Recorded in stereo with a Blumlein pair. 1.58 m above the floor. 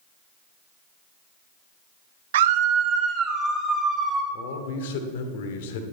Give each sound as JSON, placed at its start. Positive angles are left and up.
{"t": 2.3, "sound": "a scream", "azimuth_deg": -60, "distance_m": 0.8}
{"t": 4.3, "sound": "a man speaking", "azimuth_deg": 55, "distance_m": 1.3}